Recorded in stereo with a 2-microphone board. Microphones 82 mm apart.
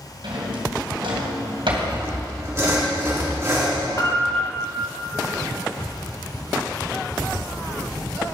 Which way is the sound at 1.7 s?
35° right (ahead or behind).